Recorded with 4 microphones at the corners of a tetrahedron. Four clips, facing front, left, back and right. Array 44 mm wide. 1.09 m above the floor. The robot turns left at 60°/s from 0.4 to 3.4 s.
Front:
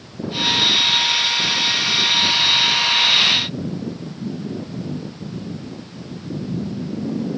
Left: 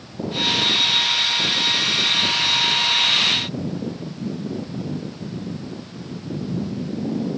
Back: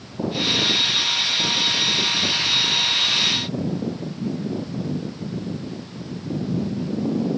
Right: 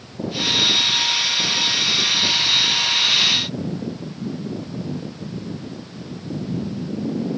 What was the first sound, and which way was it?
Only background noise.